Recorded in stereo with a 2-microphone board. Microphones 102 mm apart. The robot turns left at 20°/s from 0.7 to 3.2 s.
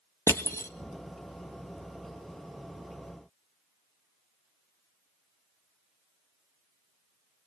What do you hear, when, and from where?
0.3 s crushing: 25° left (ahead or behind), 1.3 m